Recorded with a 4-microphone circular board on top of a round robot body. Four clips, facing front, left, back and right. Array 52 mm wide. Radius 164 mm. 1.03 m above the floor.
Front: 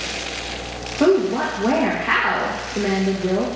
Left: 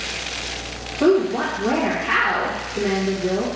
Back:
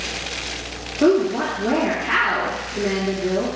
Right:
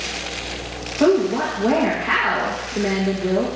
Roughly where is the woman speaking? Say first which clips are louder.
Even, even; ahead right.